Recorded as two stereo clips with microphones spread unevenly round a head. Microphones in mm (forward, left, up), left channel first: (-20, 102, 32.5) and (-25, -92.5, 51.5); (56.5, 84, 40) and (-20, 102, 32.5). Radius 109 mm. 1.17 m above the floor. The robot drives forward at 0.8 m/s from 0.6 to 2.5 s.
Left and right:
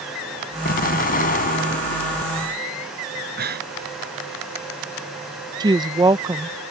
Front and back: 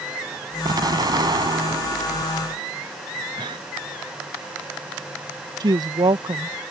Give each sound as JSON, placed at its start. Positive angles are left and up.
{"t": 0.7, "sound": "an explosion", "azimuth_deg": 135}
{"t": 3.4, "sound": "breathing", "azimuth_deg": -130}
{"t": 5.6, "sound": "a woman speaking", "azimuth_deg": -160}